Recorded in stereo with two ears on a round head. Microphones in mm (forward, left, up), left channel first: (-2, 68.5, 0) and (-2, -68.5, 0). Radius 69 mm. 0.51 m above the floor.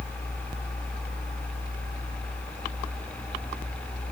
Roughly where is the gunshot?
I don't hear a gunshot.